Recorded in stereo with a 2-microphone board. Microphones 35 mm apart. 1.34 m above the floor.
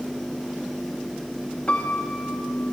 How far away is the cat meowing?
I don't hear a cat meowing.